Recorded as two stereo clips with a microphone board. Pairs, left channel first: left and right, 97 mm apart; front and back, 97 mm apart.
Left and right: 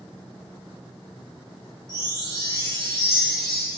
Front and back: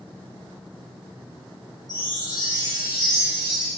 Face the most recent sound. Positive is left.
turn(degrees=-140)